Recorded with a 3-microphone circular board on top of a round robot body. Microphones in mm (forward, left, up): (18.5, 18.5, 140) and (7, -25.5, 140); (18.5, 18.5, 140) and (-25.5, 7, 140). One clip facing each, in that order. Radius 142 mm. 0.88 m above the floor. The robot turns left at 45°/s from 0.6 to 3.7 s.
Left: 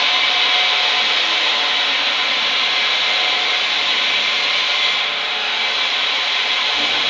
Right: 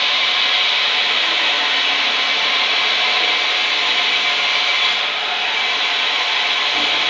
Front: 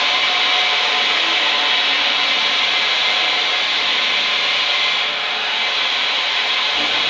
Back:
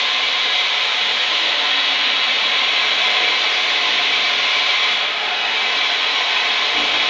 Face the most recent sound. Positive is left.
turn(degrees=-155)